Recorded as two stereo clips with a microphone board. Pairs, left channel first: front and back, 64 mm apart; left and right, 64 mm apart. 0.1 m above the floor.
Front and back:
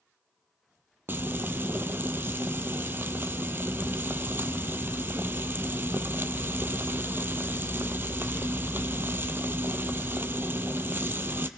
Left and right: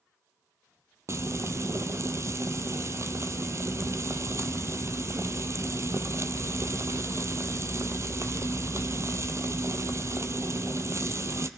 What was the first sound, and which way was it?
Frying, 125° right.